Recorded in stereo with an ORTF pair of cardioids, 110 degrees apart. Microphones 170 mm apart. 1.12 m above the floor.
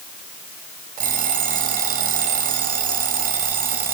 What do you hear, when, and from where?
1.0 s an alarm clock: 55° right, 3.5 m